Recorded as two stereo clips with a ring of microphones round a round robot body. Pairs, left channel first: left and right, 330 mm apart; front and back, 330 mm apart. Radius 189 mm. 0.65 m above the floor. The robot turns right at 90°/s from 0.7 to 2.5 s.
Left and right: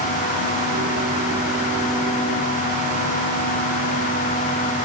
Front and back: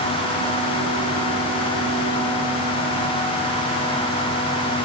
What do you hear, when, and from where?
Only background noise.